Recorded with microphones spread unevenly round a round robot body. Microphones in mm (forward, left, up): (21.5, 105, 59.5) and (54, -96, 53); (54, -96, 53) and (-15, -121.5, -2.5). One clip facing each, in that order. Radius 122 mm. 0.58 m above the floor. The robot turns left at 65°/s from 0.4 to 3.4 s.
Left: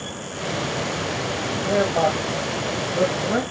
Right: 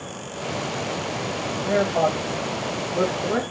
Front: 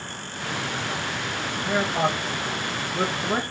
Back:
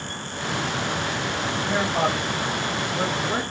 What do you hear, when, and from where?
1.6 s a man speaking: 150° right, 1.5 m; by 3.4 s 95° left, 1.5 m